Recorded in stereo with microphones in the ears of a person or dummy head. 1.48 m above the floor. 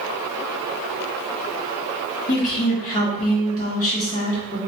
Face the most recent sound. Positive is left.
turn(degrees=40)  # may be behind; listen again after turning